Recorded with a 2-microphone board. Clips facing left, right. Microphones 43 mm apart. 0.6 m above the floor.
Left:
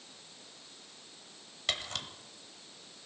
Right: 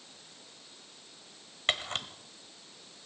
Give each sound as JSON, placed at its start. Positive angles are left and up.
{"t": 1.7, "sound": "a camera shutter", "side_deg": -35, "distance_m": 0.9}